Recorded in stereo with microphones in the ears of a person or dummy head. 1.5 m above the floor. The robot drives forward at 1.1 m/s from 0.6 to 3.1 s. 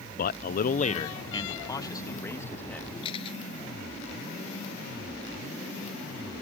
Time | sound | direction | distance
0.2 | a man speaking | 45° left (ahead or behind) | ?
3.0 | a camera shutter | 30° left (ahead or behind) | ?